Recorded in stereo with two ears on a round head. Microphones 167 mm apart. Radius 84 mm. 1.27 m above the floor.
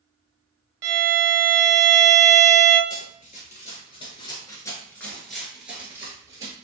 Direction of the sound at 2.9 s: 45° left (ahead or behind).